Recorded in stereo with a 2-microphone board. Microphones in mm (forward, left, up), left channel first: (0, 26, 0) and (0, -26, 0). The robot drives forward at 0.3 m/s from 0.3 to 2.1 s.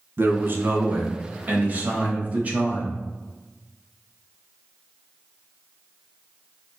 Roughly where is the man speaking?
Right.